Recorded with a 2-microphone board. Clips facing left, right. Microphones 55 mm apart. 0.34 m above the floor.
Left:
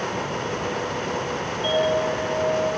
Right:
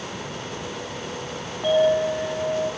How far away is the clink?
About 1.8 m.